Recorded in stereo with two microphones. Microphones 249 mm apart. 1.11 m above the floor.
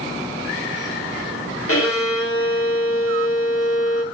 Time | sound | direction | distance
1.7 | a violin | 60° left (ahead or behind) | 1.5 m